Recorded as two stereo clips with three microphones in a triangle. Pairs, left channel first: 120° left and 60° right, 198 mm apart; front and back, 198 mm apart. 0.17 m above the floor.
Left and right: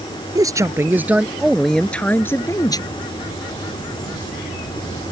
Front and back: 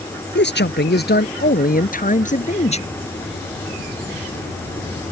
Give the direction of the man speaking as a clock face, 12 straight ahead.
12 o'clock.